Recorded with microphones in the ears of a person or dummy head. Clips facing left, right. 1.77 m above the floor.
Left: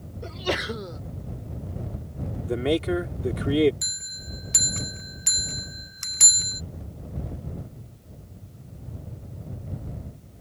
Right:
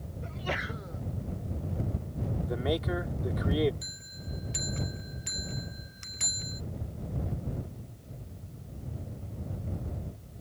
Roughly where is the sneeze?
Left.